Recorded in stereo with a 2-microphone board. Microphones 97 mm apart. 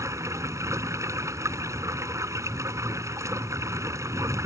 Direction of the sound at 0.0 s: 30° right (ahead or behind).